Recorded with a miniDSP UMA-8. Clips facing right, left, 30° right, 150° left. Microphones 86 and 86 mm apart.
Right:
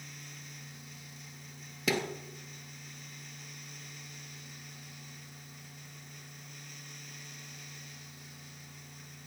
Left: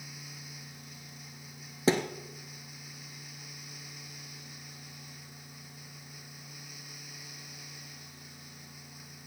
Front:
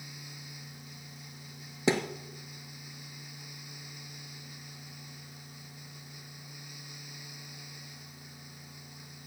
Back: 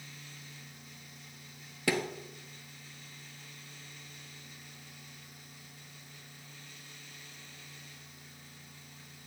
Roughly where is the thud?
Ahead left.